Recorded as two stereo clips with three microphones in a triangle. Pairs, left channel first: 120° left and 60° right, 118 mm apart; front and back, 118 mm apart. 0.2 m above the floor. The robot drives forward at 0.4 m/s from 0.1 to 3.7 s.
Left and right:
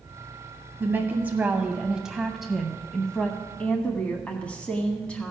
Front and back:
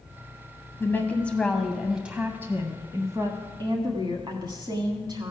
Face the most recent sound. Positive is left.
turn(degrees=-165)